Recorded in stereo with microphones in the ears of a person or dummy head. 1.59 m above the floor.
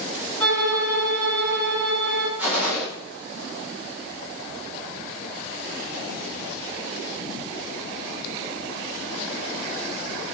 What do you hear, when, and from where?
0.4 s a violin: 10° left (ahead or behind), 2.5 m
2.4 s a gunshot: 10° right (ahead or behind), 1.5 m